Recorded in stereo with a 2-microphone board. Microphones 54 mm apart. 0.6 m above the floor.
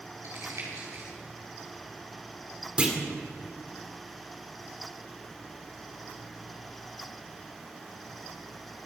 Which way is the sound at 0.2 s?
70° right (ahead or behind).